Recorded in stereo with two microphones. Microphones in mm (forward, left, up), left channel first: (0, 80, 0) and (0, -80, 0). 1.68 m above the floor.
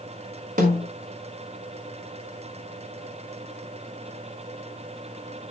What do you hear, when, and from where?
0.6 s a snare drum: 55° right (ahead or behind), 4.5 m